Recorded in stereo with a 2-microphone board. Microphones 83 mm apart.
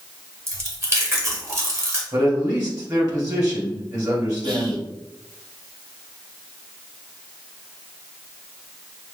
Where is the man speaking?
45° right (ahead or behind), 2.5 m.